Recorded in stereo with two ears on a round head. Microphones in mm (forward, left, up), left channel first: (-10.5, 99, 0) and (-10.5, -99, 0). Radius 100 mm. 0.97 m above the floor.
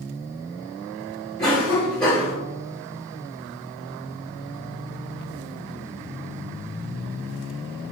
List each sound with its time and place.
1.4 s a cough: 15° left (ahead or behind), 1.4 m